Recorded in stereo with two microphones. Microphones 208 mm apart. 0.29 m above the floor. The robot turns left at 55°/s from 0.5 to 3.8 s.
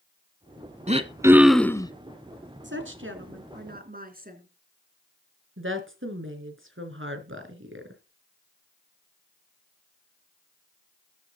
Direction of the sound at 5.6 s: 75° right (ahead or behind).